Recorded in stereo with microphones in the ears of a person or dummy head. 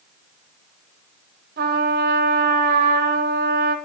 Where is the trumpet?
60° right (ahead or behind), 0.6 m.